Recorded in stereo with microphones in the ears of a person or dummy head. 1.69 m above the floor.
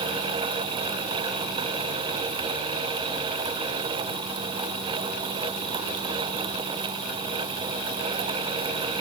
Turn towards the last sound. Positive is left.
No sound to turn to.